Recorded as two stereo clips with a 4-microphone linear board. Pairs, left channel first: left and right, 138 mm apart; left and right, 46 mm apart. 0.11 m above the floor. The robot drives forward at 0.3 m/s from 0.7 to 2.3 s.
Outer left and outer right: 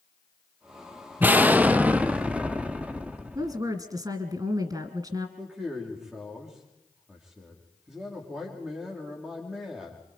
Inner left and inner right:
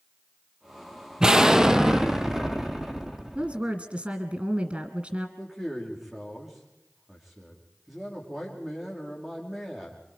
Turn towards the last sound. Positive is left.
turn(degrees=-5)  # may be behind; listen again after turning